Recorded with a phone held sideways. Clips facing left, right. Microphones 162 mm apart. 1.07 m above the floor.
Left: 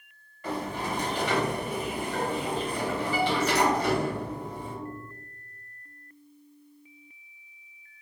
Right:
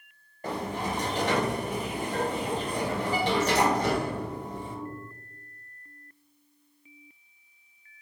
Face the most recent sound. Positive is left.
turn(degrees=-40)  # may be behind; listen again after turning